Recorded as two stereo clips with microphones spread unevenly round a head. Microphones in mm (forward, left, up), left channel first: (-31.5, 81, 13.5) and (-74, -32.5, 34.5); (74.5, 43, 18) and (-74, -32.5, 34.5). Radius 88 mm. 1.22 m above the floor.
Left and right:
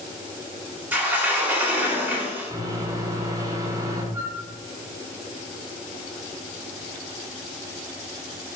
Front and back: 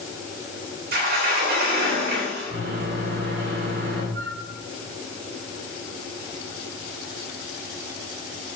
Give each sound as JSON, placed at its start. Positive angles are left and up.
{"t": 0.9, "sound": "a sliding door", "azimuth_deg": 175, "distance_m": 3.0}
{"t": 2.5, "sound": "a microwave", "azimuth_deg": -170, "distance_m": 3.0}
{"t": 4.1, "sound": "a flute", "azimuth_deg": 180, "distance_m": 3.0}